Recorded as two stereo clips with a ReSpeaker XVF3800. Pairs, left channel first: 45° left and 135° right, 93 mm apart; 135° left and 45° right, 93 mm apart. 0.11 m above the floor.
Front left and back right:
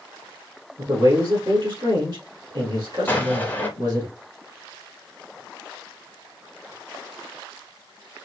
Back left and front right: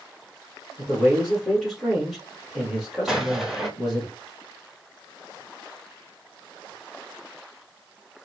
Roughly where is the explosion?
Ahead left.